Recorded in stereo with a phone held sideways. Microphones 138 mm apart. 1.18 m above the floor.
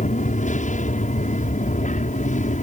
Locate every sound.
0.0 s an aircraft: 65° left (ahead or behind)